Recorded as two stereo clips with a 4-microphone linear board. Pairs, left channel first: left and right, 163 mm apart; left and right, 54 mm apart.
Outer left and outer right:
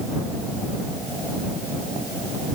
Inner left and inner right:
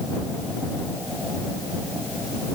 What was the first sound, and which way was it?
Only background noise.